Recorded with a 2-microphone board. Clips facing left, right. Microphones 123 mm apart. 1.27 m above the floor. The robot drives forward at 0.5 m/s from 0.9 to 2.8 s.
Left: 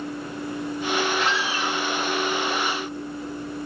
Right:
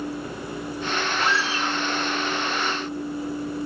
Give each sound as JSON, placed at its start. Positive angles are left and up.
{"t": 1.2, "sound": "a squeak", "side_deg": -40, "distance_m": 5.5}